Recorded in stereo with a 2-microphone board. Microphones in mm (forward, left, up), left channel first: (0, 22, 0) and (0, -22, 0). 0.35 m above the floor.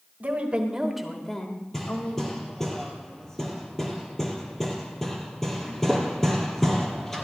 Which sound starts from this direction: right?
A woman speaking, at 0.2 s.